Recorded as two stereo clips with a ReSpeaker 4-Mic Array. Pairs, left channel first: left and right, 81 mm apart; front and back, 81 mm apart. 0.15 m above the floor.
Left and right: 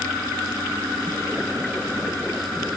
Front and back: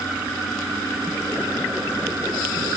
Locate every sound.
Only background noise.